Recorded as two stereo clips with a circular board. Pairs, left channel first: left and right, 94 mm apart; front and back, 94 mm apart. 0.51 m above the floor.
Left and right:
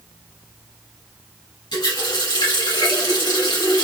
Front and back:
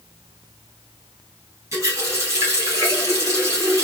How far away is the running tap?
About 2.5 m.